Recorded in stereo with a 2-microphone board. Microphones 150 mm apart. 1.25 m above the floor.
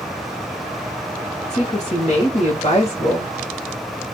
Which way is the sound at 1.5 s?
50° left (ahead or behind).